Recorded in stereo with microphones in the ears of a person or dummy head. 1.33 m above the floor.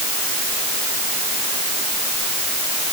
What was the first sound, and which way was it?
Only background noise.